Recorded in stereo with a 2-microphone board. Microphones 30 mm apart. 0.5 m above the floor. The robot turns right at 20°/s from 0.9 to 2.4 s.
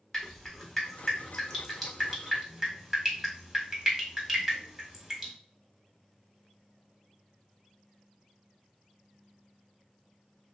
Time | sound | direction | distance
0.1 | dripping | 15° left (ahead or behind) | 1.0 m